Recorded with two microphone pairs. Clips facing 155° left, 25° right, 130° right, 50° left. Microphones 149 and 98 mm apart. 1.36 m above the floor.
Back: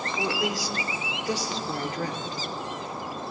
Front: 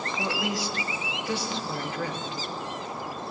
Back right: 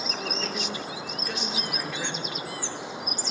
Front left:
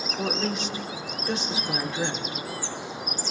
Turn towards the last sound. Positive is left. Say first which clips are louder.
# back 2 dB, front left 7 dB
turn(degrees=105)